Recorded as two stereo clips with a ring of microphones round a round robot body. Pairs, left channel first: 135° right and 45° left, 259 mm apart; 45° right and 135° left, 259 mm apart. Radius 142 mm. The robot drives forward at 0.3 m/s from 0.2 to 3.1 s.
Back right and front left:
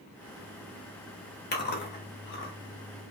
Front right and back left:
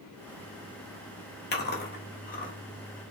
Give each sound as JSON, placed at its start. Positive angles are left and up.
{"t": 1.5, "sound": "chewing", "azimuth_deg": -90, "distance_m": 1.6}